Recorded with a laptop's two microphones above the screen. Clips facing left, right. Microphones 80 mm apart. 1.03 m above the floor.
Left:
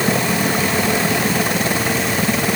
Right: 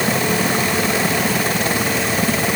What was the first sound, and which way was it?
Only background noise.